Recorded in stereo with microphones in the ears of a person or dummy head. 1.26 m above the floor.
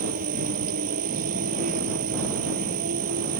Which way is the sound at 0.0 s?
45° right (ahead or behind).